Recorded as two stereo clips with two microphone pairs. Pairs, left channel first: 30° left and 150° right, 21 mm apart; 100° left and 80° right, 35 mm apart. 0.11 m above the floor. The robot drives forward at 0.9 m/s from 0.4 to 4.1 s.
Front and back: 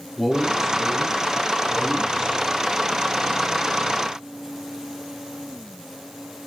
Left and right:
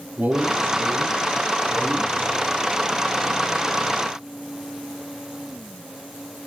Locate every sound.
0.2 s a man speaking: 50° right, 3 m; by 2.4 s 90° right, 2.5 m